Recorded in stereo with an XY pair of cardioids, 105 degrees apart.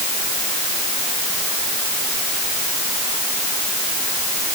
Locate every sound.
Only background noise.